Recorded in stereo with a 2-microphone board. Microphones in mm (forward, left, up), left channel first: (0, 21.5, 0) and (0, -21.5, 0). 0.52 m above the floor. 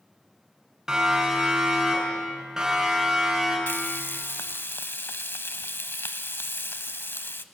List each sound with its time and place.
0.9 s a siren: 15° right (ahead or behind), 6 m
3.7 s frying: 70° left (ahead or behind), 0.9 m